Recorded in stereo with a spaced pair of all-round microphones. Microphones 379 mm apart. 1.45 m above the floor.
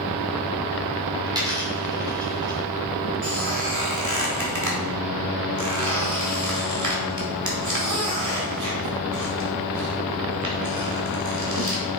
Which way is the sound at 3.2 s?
50° right (ahead or behind).